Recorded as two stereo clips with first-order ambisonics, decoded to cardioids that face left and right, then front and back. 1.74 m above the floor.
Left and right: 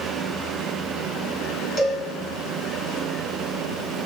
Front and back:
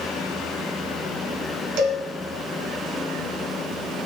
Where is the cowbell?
160° left, 2.5 m.